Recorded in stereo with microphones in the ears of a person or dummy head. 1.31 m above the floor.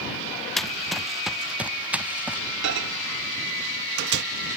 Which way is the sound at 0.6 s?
5° left (ahead or behind).